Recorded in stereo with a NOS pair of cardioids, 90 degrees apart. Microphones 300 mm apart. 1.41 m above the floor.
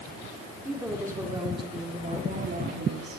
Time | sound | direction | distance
0.7 | a woman speaking | 5° right | 4.5 m